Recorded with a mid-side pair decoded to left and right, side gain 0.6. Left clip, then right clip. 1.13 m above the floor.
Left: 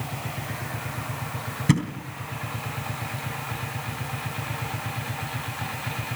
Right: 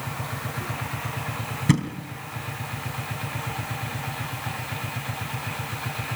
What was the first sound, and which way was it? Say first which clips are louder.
A thud: even; straight ahead.